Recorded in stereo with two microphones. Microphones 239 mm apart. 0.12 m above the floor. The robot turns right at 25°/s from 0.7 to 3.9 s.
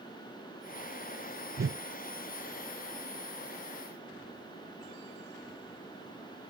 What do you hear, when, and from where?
1.6 s a whoosh: 60° right (ahead or behind)